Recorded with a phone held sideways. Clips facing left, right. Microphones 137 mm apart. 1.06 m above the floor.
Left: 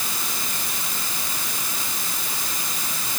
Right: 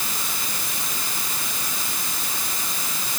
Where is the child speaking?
I don't hear a child speaking.